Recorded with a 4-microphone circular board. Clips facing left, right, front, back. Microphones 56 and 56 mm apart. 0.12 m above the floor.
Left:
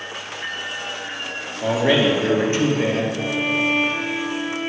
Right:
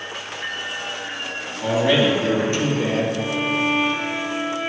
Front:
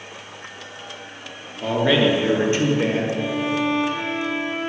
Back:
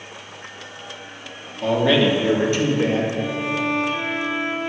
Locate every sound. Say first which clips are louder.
1.6 s a man speaking: even, back 1 dB; 70° left, 1.7 m; by 3.0 s 50° left, 2.5 m
3.1 s a violin: even, front 1 dB; 55° left, 2.5 m